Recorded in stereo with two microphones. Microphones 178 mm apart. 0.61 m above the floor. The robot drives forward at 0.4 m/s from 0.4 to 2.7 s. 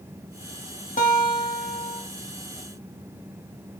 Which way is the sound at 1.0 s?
50° left (ahead or behind).